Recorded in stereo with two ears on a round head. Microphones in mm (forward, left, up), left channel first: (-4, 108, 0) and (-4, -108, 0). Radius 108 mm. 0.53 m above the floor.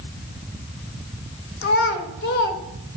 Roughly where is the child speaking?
Left.